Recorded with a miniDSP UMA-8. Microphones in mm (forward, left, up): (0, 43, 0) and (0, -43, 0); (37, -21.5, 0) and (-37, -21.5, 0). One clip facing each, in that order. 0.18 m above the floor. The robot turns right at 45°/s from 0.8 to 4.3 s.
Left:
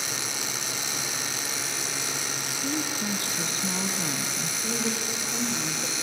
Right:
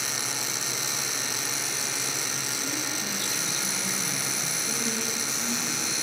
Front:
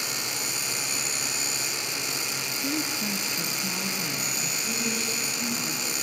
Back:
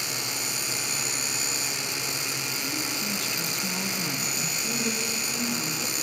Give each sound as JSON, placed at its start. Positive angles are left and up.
{"t": 2.6, "sound": "a woman speaking", "azimuth_deg": 35, "distance_m": 1.3}
{"t": 4.6, "sound": "a woman speaking", "azimuth_deg": 110, "distance_m": 7.0}